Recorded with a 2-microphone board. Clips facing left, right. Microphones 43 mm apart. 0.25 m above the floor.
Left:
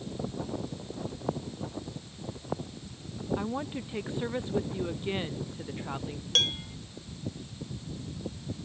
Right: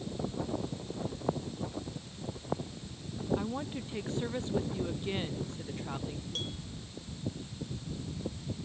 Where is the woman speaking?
15° left (ahead or behind).